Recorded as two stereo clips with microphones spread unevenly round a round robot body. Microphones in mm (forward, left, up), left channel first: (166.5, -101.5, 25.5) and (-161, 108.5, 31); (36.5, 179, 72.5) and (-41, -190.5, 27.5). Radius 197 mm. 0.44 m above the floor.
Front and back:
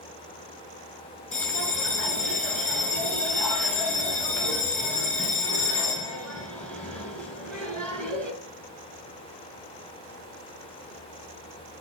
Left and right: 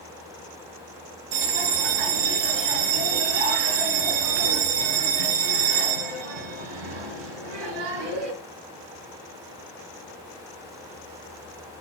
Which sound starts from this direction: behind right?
A bell, at 1.3 s.